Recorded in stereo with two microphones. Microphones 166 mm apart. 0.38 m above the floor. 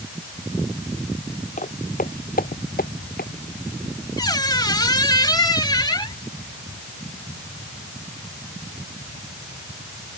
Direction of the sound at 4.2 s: 25° left (ahead or behind).